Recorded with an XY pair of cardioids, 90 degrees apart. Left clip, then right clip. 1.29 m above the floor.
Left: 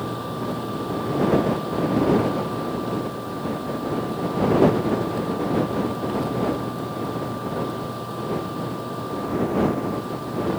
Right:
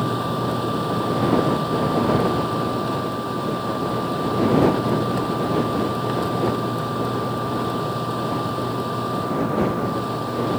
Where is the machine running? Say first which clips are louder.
Right 5 dB; 50° right.